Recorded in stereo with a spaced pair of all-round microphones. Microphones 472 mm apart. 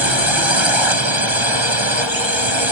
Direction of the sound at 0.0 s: 65° right (ahead or behind).